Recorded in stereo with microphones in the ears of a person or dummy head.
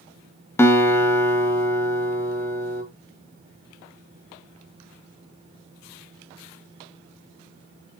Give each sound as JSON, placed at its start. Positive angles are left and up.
{"t": 0.6, "sound": "a guitar", "side_deg": 15, "distance_m": 1.6}